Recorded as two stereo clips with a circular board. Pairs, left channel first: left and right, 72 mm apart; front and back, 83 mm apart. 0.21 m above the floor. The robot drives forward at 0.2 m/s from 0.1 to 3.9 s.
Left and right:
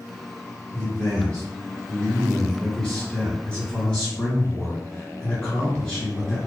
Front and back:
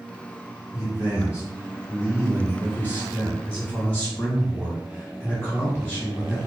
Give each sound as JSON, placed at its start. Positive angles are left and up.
{"t": 0.7, "sound": "a man speaking", "azimuth_deg": 20, "distance_m": 1.9}